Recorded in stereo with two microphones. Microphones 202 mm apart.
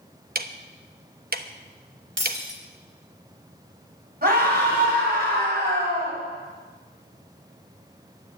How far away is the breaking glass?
About 3 m.